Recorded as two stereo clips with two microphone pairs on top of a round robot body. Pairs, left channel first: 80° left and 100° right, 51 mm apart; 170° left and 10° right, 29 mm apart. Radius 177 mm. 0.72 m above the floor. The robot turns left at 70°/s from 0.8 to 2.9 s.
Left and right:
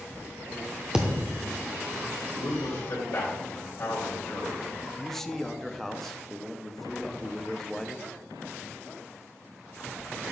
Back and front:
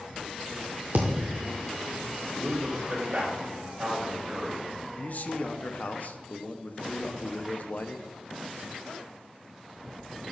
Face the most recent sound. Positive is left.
turn(degrees=170)